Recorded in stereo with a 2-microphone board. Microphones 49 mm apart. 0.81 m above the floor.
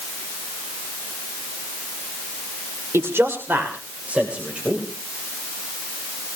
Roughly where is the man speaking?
Right.